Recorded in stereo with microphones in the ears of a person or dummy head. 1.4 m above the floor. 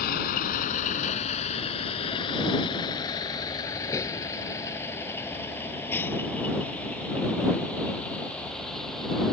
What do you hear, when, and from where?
0.0 s a vehicle: 55° left (ahead or behind); by 9.3 s 5° left (ahead or behind)